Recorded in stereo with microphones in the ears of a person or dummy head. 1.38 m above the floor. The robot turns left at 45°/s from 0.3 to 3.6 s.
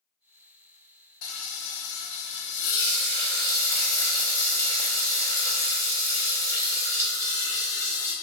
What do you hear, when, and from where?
1.2 s frying: 125° left, 0.8 m; by 8.1 s 15° left, 0.8 m